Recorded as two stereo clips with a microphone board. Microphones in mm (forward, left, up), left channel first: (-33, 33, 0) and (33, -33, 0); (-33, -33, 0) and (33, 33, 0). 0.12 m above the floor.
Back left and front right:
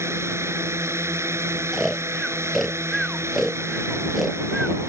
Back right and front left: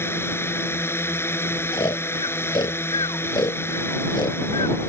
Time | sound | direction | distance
0.0 | a drone | 85° right | ?
1.7 | snoring | 135° right | ?